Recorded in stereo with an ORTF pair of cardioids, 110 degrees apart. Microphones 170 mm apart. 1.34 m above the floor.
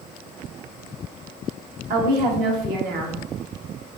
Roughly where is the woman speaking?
Ahead right.